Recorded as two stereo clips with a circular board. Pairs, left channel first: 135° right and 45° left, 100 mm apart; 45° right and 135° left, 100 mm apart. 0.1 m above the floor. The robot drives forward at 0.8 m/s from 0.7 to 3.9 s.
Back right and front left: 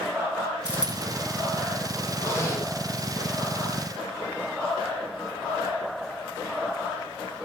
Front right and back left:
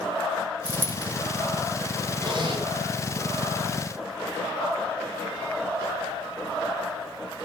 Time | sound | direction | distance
0.7 | a dropped coin | 125° left | 1.8 m
2.2 | a zipper | 165° left | 3 m